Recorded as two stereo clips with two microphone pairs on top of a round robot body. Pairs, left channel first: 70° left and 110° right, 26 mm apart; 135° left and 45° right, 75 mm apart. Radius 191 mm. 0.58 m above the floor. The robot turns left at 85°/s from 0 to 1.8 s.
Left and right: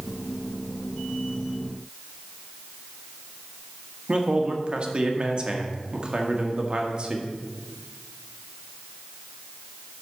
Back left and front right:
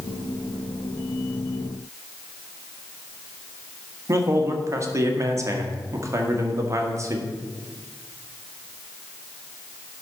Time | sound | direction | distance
4.1 | a man speaking | 65° right | 1.7 m